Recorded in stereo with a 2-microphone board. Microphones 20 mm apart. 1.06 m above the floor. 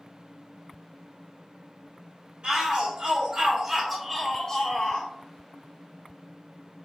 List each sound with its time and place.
2.4 s a shout: 55° right (ahead or behind), 1.3 m; by 5.1 s 45° left (ahead or behind), 1.2 m